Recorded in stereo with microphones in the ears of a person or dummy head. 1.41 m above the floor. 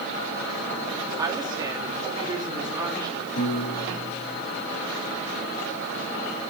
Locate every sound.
1.2 s a woman speaking: 20° right (ahead or behind), 3.5 m
3.4 s a piano: 50° left (ahead or behind), 4 m